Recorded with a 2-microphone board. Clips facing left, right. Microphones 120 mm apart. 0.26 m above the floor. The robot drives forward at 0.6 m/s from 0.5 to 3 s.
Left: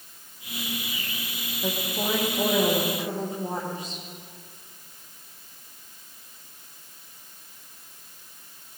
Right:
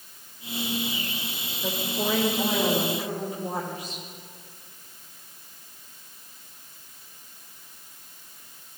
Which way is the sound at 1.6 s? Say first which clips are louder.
Even; 30° left (ahead or behind).